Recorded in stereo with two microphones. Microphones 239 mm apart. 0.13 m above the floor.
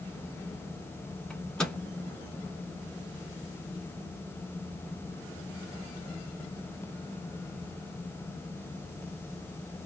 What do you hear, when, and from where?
1.3 s a microwave: 5° left (ahead or behind), 0.9 m